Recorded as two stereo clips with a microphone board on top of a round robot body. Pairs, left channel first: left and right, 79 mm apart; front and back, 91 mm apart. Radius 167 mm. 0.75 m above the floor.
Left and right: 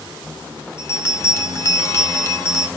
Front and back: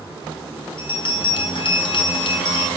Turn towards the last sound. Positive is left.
turn(degrees=30)